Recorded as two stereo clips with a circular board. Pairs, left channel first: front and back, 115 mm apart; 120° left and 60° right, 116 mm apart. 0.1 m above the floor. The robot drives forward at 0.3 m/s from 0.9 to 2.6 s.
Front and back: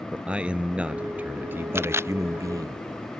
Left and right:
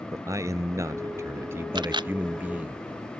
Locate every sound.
0.1 s a man speaking: 105° right; by 2.8 s 130° right
1.8 s a camera shutter: 110° right